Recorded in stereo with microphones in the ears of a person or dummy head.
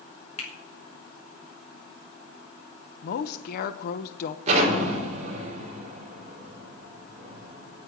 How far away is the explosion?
About 4 m.